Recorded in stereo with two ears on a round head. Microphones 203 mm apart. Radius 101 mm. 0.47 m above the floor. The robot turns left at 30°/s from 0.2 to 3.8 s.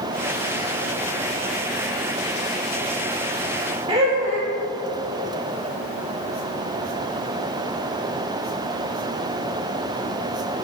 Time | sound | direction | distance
3.9 | laughter | 25° right (ahead or behind) | 1.1 m